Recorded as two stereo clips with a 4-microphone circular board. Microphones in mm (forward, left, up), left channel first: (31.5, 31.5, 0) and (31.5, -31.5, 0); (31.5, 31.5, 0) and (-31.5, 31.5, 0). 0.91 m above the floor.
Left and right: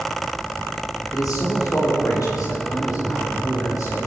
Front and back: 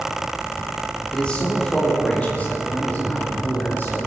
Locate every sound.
1.1 s a man speaking: 75° left, 2.5 m; by 4.0 s 60° left, 4.5 m